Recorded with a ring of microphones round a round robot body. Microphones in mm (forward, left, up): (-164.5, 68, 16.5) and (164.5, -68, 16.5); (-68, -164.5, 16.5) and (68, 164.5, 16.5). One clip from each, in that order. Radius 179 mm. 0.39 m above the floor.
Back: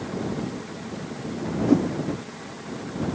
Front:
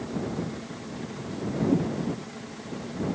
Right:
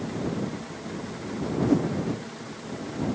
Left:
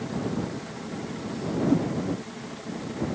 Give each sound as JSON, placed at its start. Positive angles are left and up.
{"t": 1.7, "sound": "a whoosh", "azimuth_deg": 170}